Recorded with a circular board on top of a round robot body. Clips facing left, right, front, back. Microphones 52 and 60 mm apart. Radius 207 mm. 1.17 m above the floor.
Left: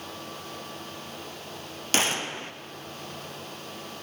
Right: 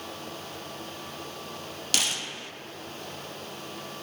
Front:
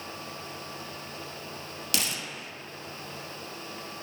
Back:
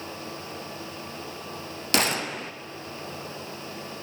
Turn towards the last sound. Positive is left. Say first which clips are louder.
# left 5 dB, back 9 dB
turn(degrees=145)